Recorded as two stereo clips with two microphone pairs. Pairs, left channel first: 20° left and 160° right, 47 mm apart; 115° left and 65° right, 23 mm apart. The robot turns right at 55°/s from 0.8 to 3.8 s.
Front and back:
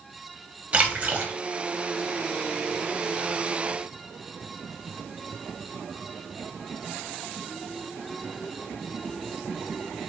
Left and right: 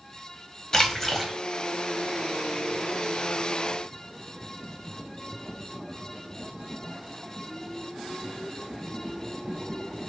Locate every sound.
0.7 s a splash: 165° left, 0.6 m; by 1.3 s 165° right, 0.6 m